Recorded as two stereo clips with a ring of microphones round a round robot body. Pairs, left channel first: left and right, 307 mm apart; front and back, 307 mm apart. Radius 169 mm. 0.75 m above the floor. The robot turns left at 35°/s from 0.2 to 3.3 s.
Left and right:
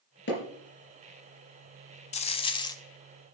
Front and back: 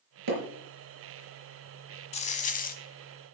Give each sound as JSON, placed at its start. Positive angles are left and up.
{"t": 0.3, "sound": "hammering", "azimuth_deg": 150, "distance_m": 4.5}
{"t": 2.1, "sound": "a dropped coin", "azimuth_deg": 50, "distance_m": 0.6}